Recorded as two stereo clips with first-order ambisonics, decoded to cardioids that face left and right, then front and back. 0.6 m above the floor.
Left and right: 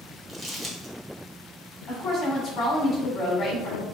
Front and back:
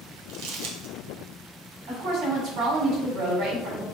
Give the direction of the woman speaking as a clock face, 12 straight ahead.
7 o'clock.